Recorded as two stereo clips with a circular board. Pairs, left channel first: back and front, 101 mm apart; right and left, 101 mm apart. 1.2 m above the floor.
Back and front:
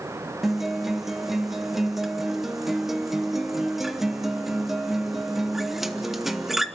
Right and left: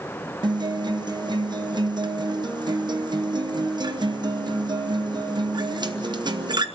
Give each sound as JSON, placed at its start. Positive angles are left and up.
{"t": 0.4, "sound": "a guitar", "azimuth_deg": 85, "distance_m": 0.9}